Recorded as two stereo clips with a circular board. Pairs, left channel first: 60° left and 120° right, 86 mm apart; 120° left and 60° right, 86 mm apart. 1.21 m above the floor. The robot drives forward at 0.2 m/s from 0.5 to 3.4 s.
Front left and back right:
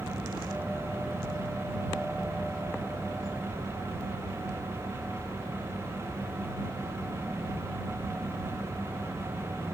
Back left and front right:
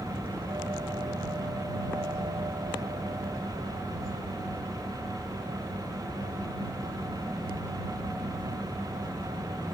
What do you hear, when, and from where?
Only background noise.